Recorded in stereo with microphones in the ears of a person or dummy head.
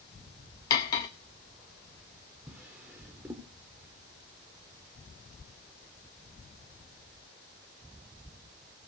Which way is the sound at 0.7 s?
20° left (ahead or behind).